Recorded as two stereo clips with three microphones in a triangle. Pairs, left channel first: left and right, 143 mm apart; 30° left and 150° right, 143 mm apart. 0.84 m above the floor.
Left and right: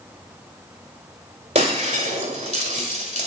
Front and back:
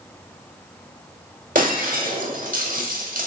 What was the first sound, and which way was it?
Breaking glass, 130° right.